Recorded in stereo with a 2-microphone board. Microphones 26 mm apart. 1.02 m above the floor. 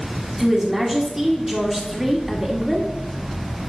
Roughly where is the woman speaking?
Centre.